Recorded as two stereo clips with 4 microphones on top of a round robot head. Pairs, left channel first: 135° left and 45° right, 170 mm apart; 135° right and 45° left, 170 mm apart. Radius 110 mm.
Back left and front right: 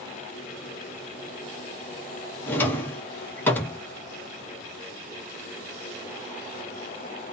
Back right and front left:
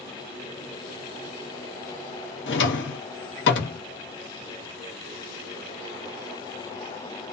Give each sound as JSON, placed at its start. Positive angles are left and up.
{"t": 2.5, "sound": "a drawer", "azimuth_deg": -145, "distance_m": 0.7}